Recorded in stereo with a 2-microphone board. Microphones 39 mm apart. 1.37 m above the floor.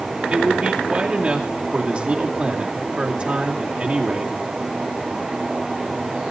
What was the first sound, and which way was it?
A man speaking, 35° right (ahead or behind).